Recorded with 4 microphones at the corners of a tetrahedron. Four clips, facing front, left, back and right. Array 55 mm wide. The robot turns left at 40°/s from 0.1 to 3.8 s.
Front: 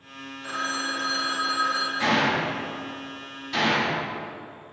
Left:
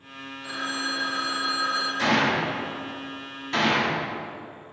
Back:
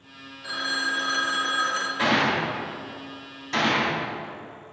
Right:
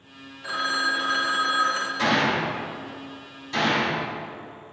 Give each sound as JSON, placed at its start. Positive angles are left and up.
{"t": 0.4, "sound": "a phone ringing", "azimuth_deg": -65, "distance_m": 0.6}
{"t": 2.0, "sound": "a gunshot", "azimuth_deg": 180, "distance_m": 1.6}